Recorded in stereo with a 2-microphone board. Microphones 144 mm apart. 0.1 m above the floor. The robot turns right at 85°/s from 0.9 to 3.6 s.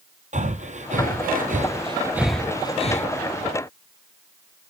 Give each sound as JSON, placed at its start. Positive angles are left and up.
{"t": 0.3, "sound": "breathing", "side_deg": -55, "distance_m": 1.4}